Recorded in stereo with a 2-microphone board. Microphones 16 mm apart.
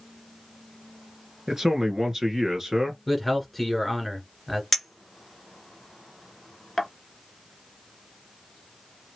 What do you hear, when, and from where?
1.5 s a man speaking: 30° right (ahead or behind), 1.5 m
3.1 s a man speaking: 5° left (ahead or behind), 1.9 m
4.7 s a clink: 5° left (ahead or behind), 0.9 m